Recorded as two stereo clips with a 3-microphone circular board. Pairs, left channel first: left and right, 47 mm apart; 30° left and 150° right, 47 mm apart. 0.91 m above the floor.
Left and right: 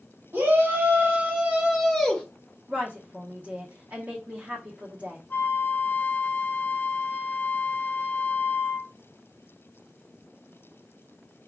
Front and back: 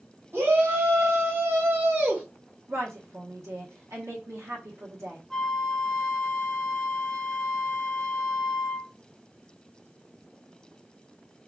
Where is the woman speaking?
145° right, 1.3 m.